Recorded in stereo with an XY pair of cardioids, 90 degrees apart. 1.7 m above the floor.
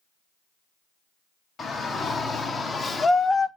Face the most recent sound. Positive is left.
turn(degrees=40)